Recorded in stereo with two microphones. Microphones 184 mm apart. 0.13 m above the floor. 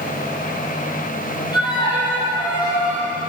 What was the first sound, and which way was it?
A violin, 20° left (ahead or behind).